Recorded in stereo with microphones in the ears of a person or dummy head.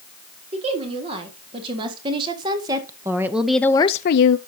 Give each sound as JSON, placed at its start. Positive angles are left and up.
{"t": 0.5, "sound": "a woman speaking", "side_deg": -35, "distance_m": 4.0}